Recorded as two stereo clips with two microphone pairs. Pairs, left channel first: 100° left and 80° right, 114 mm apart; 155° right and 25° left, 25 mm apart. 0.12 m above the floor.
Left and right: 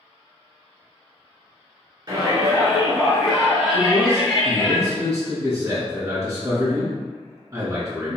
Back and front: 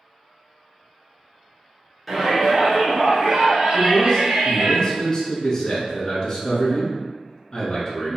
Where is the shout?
60° right, 1.5 m; by 4.7 s 20° left, 1.7 m.